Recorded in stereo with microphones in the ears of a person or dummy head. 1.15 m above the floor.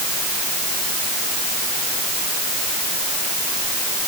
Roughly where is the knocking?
I don't hear knocking.